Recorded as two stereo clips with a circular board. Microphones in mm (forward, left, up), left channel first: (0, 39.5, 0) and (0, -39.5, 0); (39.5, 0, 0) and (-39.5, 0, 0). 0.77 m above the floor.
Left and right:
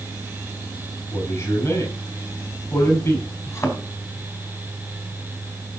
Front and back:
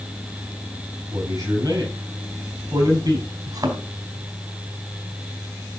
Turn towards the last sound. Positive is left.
turn(degrees=145)